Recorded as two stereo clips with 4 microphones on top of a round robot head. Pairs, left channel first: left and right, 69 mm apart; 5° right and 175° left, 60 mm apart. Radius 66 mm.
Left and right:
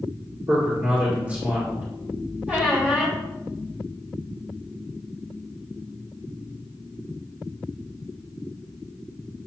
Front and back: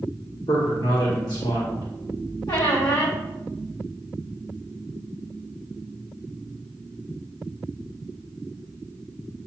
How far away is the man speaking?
About 2.5 m.